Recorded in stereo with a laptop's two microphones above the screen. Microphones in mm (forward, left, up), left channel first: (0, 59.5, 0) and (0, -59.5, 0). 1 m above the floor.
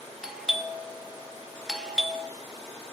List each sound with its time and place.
0.2 s a doorbell: 5° right (ahead or behind), 0.9 m